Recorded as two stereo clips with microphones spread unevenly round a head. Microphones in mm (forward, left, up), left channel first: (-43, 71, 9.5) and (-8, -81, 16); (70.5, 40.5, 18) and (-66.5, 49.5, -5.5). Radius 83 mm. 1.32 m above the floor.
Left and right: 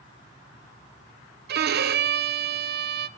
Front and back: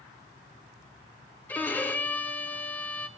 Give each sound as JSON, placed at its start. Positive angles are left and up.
{"t": 1.5, "sound": "a violin", "azimuth_deg": -85, "distance_m": 1.1}